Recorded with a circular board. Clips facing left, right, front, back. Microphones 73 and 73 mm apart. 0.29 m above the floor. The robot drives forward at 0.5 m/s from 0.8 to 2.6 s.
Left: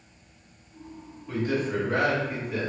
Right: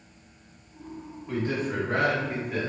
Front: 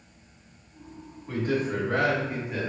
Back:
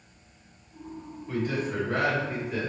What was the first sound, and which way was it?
A man speaking, 45° right.